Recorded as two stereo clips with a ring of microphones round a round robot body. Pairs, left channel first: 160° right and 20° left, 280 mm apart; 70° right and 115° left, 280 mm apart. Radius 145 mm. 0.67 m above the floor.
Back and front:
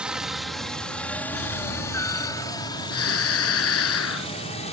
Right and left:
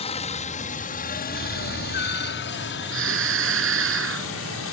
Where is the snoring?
160° left.